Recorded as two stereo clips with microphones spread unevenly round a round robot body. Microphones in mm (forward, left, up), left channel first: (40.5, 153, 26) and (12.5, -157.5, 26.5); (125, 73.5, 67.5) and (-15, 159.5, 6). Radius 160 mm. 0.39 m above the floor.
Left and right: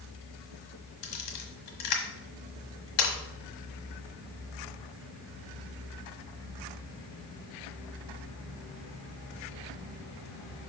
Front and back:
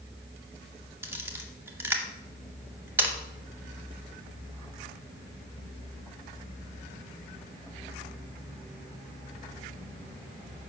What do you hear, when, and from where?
1.0 s a camera shutter: 75° left, 1.2 m